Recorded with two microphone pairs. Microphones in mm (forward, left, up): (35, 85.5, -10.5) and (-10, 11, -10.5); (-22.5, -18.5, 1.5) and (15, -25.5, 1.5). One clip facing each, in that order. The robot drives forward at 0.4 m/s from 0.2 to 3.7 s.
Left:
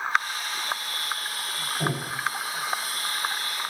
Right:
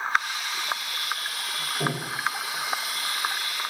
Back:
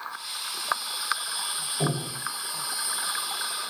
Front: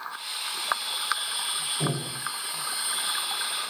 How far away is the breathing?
About 2 m.